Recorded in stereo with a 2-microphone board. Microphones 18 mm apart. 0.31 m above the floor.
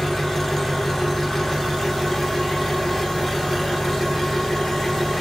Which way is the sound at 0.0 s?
5° left (ahead or behind).